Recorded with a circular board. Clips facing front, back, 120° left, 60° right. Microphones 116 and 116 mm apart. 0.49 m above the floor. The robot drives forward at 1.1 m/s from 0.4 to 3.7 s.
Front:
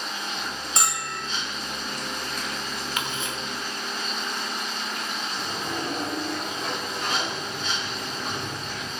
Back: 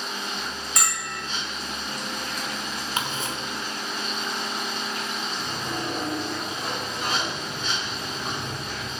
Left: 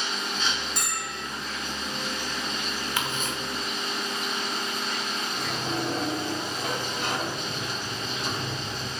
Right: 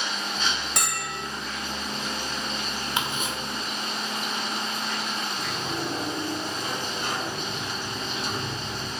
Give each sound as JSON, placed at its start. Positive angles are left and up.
{"t": 0.8, "sound": "a bell", "azimuth_deg": -65, "distance_m": 1.2}
{"t": 3.0, "sound": "ticking", "azimuth_deg": -125, "distance_m": 1.3}
{"t": 5.3, "sound": "a sliding door", "azimuth_deg": 100, "distance_m": 2.5}